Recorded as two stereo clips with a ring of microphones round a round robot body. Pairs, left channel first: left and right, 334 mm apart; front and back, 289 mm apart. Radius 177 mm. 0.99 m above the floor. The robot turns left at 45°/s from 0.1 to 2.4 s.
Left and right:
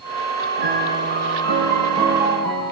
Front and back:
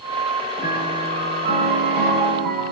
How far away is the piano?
About 9 m.